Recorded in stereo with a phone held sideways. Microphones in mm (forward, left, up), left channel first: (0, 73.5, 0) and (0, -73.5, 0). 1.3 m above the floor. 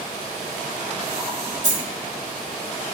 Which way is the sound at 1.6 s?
5° right (ahead or behind).